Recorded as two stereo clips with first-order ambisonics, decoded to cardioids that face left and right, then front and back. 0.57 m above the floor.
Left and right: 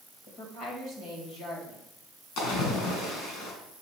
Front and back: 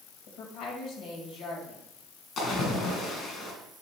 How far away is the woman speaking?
About 2.5 m.